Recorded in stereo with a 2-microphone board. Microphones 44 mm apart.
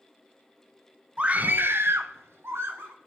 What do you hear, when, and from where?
1.2 s a scream: 25° right (ahead or behind), 0.9 m; by 3.0 s 65° right (ahead or behind), 1.6 m